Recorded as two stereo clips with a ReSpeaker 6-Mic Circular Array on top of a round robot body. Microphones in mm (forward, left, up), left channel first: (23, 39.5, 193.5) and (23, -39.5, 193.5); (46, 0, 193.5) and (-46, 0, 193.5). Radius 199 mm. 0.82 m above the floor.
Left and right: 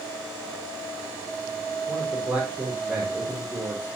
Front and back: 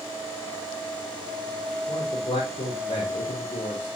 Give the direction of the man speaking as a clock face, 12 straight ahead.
12 o'clock.